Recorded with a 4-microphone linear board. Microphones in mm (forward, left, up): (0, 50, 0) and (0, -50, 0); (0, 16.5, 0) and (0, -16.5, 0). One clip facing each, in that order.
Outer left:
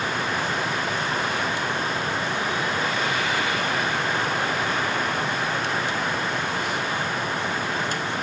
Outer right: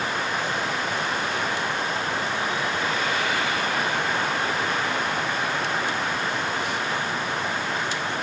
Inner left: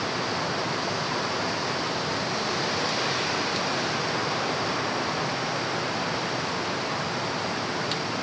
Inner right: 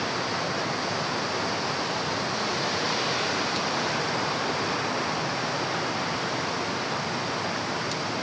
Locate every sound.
Only background noise.